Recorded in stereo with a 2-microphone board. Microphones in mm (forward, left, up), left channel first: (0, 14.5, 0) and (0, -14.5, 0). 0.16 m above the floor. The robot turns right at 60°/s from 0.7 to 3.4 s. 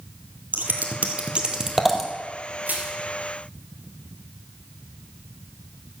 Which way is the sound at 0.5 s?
70° right (ahead or behind).